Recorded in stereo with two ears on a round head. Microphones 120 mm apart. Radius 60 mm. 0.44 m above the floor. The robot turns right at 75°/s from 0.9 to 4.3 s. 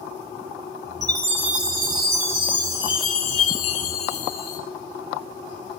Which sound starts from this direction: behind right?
A chime, at 1.0 s.